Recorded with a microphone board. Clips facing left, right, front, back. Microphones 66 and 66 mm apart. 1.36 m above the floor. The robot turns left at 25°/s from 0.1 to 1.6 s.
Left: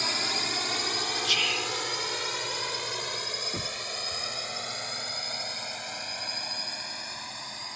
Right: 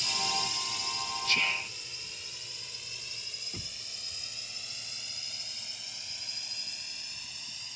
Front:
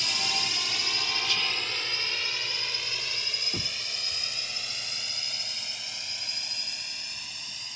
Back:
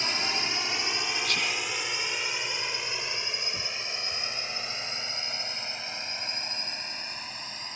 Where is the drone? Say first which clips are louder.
Left 2 dB, back 2 dB; 120° left; by 7.8 s 125° left.